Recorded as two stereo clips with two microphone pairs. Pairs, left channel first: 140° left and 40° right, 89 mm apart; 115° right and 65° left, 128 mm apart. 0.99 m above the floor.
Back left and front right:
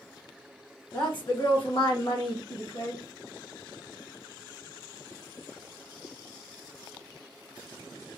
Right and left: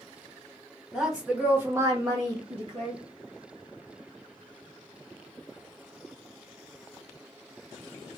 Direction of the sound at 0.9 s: 155° left.